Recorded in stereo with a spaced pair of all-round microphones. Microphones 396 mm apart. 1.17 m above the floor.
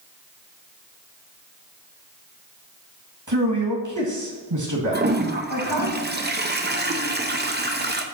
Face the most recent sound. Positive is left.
turn(degrees=-25)  # may be behind; listen again after turning